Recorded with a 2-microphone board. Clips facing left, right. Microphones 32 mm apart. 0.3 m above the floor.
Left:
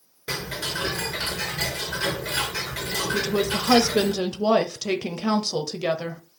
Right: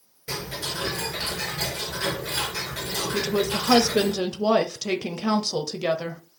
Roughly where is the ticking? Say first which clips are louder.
Left 2 dB; left.